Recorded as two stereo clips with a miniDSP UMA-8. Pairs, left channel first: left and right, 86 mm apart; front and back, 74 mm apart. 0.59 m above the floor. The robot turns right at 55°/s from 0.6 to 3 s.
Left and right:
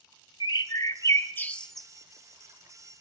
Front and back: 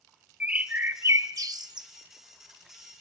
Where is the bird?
115° left, 0.7 m; by 1.9 s 175° right, 0.7 m.